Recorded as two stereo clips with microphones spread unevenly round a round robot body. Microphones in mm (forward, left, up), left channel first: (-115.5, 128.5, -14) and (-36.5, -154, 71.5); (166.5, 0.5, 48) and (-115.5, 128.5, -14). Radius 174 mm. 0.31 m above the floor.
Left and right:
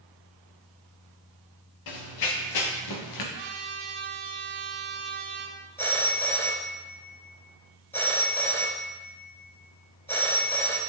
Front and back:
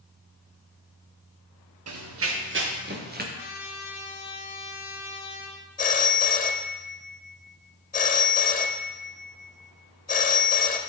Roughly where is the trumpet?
Ahead right.